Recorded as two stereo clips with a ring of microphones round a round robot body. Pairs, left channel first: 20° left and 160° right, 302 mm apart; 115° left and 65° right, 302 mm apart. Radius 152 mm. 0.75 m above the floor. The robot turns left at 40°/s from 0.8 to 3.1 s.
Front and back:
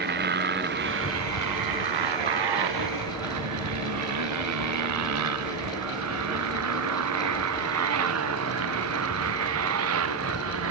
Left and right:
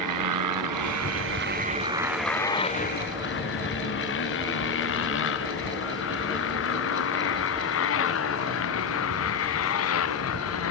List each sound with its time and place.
0.0 s a motorcycle: 100° right; by 10.7 s 155° left